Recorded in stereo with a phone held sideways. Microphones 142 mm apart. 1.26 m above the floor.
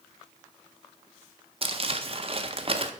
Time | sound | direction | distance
1.6 | crumpling | 40° right (ahead or behind) | 0.6 m